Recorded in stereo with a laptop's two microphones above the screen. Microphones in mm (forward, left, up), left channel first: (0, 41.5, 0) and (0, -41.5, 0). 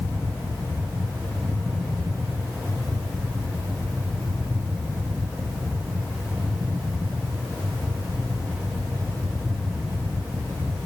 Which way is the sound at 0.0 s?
5° right (ahead or behind).